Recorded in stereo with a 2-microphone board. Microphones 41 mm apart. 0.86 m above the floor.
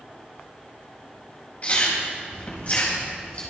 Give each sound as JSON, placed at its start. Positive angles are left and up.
{"t": 1.6, "sound": "chewing", "side_deg": 35, "distance_m": 4.0}